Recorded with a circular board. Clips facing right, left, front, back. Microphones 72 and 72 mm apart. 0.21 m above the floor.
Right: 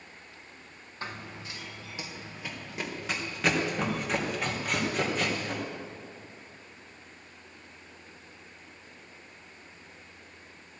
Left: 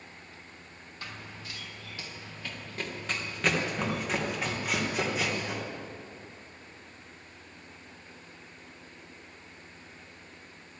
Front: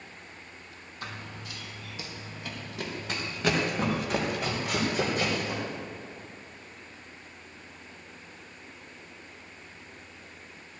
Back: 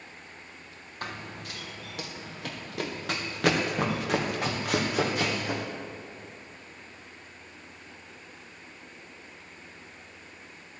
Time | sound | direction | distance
1.0 | running footsteps | 145° right | 2 m